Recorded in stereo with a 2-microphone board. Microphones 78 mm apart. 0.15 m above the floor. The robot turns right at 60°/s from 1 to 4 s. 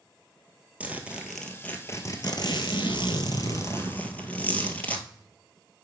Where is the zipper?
20° right, 1.3 m; by 5.1 s 160° left, 1.3 m.